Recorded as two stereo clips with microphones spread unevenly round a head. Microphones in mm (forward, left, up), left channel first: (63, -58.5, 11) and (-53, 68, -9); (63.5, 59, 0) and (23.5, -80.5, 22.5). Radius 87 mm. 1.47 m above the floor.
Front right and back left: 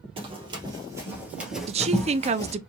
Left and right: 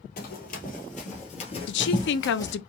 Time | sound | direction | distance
0.2 | running footsteps | 75° left | 2 m
1.7 | a woman speaking | 75° left | 0.6 m